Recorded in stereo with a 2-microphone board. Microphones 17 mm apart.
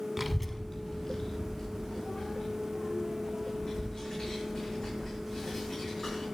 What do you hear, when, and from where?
0.2 s a child speaking: 15° right (ahead or behind), 0.7 m; by 6.2 s 50° left (ahead or behind), 7.5 m